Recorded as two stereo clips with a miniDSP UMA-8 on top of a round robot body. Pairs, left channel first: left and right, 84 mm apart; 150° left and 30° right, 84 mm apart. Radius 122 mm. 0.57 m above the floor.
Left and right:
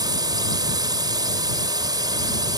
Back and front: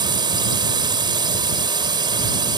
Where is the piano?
I don't hear a piano.